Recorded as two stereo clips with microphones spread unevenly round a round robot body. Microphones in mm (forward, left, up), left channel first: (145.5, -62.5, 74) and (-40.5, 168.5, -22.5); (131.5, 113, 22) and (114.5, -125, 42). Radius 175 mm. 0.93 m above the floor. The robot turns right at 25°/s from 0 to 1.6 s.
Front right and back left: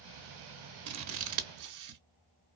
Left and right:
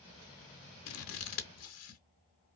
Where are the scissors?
85° left, 1.0 m; by 2.0 s 100° left, 1.0 m.